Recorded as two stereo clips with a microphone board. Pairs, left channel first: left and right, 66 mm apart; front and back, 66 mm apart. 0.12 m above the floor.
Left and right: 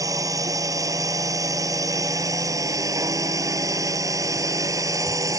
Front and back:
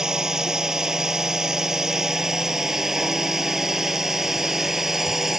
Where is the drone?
100° right; by 5.4 s 95° right.